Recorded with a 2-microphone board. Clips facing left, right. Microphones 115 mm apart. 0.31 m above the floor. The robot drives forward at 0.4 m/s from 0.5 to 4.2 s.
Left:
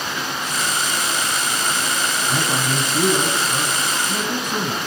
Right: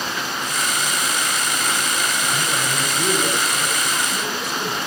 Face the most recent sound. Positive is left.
turn(degrees=50)  # may be behind; listen again after turning